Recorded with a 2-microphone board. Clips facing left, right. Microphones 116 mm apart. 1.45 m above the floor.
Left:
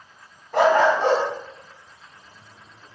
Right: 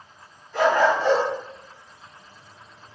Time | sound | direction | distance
0.5 | a dog barking | 65° left (ahead or behind) | 4 m